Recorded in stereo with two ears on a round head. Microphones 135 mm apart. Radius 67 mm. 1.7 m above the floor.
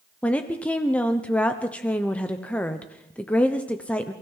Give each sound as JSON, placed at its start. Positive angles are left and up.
{"t": 0.2, "sound": "a woman speaking", "side_deg": 10, "distance_m": 0.9}